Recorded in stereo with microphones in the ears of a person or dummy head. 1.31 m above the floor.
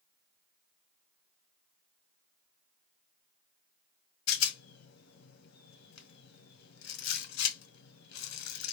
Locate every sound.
4.3 s a rattle: 80° left, 1.1 m